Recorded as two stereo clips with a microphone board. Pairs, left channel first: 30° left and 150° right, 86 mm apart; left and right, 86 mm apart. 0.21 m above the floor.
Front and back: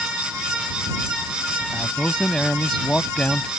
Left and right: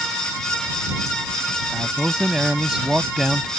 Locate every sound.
1.7 s a man speaking: 30° right